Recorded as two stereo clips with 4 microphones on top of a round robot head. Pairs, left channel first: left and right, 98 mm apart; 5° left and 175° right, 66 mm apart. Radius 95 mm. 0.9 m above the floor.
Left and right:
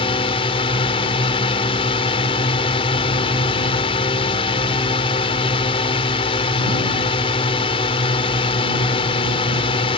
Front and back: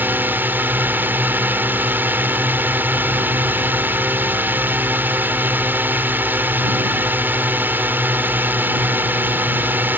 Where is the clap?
I don't hear a clap.